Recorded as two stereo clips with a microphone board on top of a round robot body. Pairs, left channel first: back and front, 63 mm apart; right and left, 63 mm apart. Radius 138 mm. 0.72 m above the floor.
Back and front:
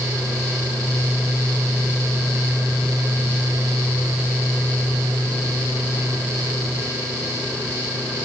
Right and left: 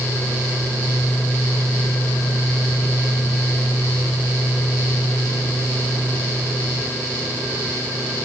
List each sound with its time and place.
Only background noise.